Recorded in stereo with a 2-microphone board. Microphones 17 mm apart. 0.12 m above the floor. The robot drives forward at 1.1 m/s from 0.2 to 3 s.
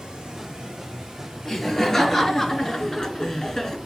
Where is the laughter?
15° left (ahead or behind), 2.5 m; by 3.8 s 25° left (ahead or behind), 1.6 m.